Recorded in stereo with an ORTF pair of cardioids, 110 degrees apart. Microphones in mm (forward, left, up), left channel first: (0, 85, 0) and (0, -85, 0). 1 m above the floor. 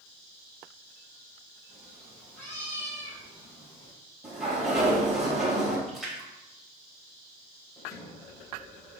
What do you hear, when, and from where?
1.7 s a cat meowing: straight ahead, 3.5 m; by 3.9 s 20° left, 4.5 m
4.2 s a sliding door: 5° right, 3.5 m
5.9 s a splash: straight ahead, 3.5 m
7.8 s a sliding door: 20° left, 2.5 m